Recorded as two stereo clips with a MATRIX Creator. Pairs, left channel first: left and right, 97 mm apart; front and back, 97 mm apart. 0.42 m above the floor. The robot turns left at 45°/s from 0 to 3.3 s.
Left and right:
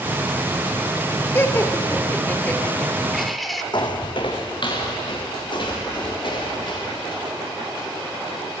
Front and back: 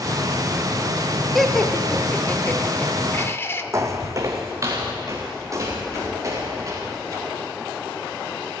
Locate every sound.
1.4 s laughter: 90° left, 0.9 m; by 3.6 s straight ahead, 0.9 m
3.7 s footsteps: 125° left, 1.0 m